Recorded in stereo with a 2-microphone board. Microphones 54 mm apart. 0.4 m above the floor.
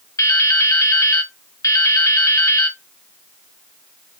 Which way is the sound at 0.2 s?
85° left.